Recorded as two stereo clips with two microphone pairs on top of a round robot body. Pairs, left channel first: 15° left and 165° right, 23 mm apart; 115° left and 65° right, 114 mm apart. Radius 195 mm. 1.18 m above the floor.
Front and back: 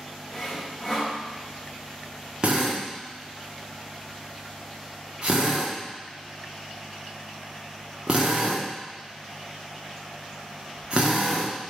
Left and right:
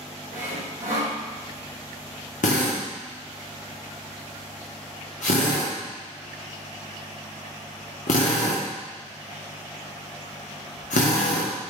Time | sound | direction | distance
0.3 | sawing | 55° right | 3.5 m
2.4 | a drill | 135° left | 1.0 m